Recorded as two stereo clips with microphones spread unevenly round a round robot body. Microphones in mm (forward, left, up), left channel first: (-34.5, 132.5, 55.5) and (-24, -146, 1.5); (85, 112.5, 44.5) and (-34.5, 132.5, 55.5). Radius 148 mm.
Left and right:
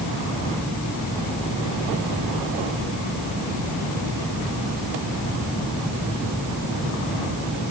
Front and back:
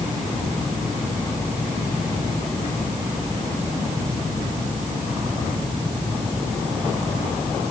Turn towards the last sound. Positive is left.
No sound to turn to.